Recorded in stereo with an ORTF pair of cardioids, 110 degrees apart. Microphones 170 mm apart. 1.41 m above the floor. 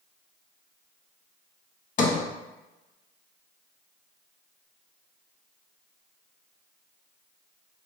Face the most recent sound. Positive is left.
turn(degrees=50)